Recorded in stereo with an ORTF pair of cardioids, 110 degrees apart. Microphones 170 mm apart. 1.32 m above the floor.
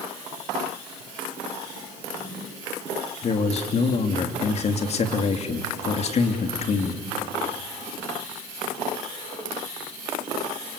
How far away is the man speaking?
About 3 m.